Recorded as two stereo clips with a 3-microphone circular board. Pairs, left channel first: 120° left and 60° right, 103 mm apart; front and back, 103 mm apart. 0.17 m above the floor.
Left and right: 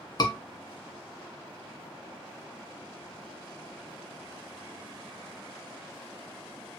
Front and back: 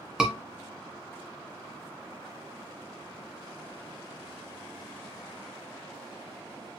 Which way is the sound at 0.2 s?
100° left.